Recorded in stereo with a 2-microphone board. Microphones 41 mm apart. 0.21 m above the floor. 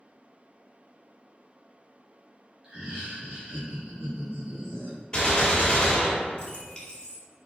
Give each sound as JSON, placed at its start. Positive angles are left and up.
{"t": 2.6, "sound": "laughter", "side_deg": -15, "distance_m": 1.0}
{"t": 5.1, "sound": "a gunshot", "side_deg": 30, "distance_m": 0.9}